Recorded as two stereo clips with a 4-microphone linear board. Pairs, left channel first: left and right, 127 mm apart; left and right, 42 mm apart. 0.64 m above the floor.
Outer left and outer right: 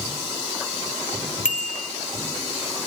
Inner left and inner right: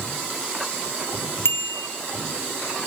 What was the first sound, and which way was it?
A bicycle bell, 80° left.